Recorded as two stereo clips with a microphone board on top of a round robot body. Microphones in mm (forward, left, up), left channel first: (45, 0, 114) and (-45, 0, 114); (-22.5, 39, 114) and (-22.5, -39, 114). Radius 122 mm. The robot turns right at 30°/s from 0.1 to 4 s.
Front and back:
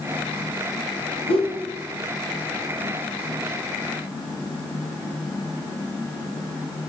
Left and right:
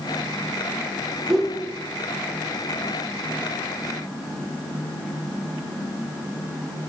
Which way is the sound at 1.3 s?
5° right.